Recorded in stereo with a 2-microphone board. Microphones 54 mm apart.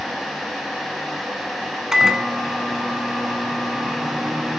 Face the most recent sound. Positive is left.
turn(degrees=-10)  # may be behind; listen again after turning